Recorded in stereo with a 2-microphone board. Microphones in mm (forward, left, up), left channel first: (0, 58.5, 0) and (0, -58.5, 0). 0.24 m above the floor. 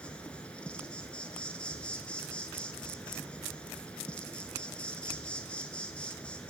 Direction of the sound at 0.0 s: 10° left (ahead or behind).